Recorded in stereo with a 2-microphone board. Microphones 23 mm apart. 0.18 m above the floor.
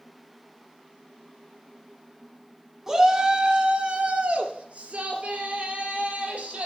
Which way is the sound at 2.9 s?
15° right (ahead or behind).